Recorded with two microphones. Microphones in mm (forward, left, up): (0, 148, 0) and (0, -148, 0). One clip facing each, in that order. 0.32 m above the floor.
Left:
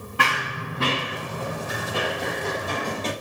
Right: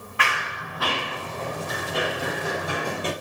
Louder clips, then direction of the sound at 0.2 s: Left 3 dB; 50° left (ahead or behind).